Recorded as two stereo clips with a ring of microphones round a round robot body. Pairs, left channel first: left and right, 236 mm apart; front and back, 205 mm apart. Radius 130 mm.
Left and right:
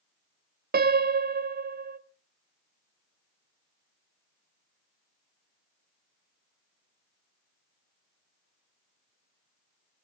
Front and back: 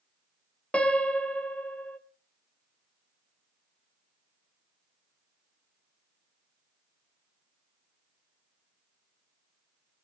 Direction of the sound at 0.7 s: 80° right.